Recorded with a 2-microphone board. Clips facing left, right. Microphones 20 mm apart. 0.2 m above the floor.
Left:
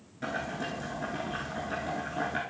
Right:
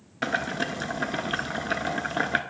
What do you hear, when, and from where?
0.2 s boiling: 55° right (ahead or behind), 0.7 m